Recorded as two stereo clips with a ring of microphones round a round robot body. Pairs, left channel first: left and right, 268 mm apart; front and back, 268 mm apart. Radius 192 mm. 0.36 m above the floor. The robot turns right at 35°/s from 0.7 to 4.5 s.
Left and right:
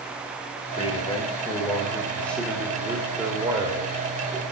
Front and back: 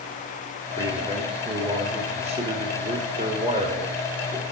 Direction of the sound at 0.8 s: 115° left.